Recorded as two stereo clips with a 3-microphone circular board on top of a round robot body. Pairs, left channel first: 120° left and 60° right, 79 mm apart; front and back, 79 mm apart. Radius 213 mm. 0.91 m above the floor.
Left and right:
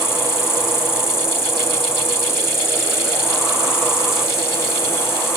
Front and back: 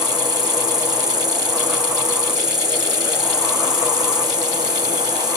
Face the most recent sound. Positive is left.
turn(degrees=170)